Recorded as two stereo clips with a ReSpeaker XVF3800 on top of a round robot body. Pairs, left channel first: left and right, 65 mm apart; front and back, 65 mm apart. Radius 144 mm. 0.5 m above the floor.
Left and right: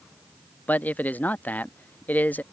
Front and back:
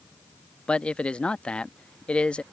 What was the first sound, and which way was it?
A man speaking, 55° left.